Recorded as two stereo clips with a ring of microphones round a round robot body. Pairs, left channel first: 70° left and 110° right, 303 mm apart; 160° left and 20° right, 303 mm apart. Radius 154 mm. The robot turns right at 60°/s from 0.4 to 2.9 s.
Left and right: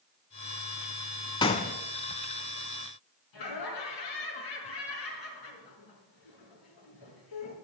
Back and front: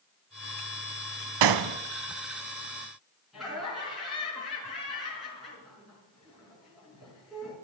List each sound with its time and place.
1.4 s a gunshot: 10° right, 0.6 m; by 1.8 s 15° left, 0.6 m
3.3 s laughter: 65° left, 5.5 m